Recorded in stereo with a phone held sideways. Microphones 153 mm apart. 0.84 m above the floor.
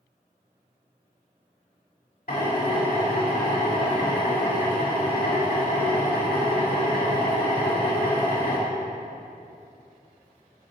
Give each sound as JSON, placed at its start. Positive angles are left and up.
{"t": 2.3, "sound": "a drill", "side_deg": 80, "distance_m": 2.5}